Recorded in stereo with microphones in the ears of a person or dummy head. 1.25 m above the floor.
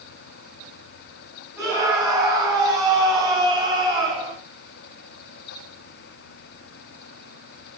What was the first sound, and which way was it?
A scream, 5° right (ahead or behind).